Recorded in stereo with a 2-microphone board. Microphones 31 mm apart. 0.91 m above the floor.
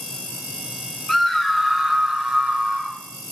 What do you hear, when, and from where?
1.1 s a scream: 5° left (ahead or behind), 1.3 m; by 3.0 s 35° right (ahead or behind), 1.9 m